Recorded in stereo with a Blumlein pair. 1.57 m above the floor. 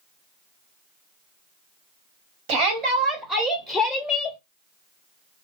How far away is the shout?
About 1.0 m.